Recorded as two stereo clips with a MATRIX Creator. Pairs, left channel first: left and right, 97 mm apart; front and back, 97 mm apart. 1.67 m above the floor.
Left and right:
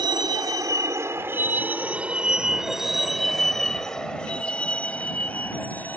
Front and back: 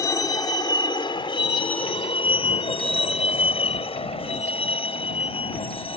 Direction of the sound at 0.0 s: 55° right.